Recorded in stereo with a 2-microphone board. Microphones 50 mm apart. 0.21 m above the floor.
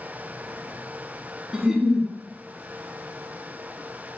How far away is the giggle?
About 1.0 m.